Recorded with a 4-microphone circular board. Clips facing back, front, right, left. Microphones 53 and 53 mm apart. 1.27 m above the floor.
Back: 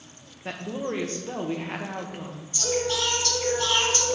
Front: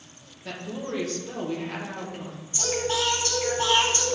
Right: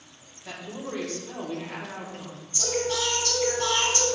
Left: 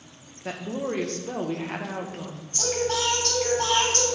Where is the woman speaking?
125° left, 1.2 m.